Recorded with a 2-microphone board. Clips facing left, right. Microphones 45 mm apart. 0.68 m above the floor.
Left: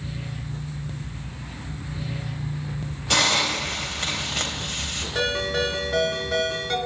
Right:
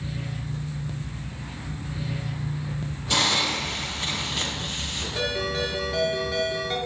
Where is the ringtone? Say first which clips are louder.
Left 3 dB; 90° left, 5 m.